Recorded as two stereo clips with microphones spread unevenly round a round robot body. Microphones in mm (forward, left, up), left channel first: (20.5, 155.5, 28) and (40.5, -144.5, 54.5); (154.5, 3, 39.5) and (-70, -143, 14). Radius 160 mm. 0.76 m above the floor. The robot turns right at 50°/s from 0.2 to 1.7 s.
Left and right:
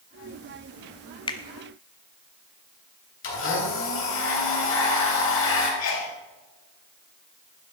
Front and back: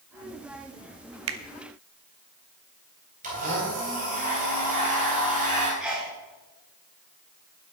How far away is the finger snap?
About 0.8 m.